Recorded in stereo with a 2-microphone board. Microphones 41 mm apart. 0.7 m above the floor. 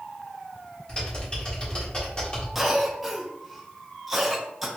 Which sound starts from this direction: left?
Typing on a keyboard, at 0.9 s.